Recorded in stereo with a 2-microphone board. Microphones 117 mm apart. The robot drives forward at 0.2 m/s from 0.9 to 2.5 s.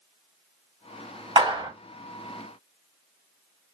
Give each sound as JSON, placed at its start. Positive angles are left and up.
{"t": 1.4, "sound": "a clap", "side_deg": -45, "distance_m": 2.5}